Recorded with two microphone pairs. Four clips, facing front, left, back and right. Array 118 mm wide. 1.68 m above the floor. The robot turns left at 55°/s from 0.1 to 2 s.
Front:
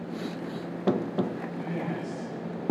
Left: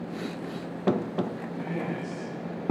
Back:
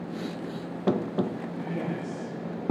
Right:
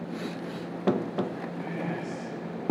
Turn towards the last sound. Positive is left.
turn(degrees=5)